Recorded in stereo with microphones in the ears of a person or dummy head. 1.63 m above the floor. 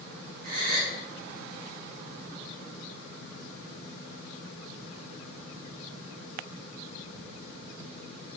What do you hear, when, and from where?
0.4 s a gasp: 50° right (ahead or behind), 2 m